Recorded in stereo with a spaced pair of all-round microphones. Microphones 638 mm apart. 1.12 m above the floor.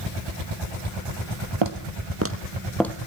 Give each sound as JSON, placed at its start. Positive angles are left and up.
{"t": 1.6, "sound": "footsteps", "side_deg": -45, "distance_m": 2.0}